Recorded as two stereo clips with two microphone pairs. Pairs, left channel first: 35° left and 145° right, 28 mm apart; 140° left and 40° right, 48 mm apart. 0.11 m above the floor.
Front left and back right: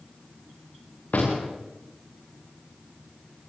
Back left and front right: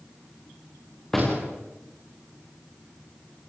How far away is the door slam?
About 7.5 m.